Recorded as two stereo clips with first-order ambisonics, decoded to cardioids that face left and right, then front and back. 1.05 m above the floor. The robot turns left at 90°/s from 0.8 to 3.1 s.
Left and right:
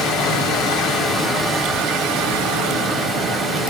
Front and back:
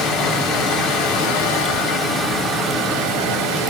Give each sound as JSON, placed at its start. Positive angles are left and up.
{"t": 0.0, "sound": "running water", "azimuth_deg": 55, "distance_m": 1.3}